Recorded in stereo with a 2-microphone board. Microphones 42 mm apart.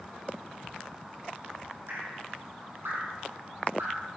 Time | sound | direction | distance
1.9 | dripping | 80° right | 3.5 m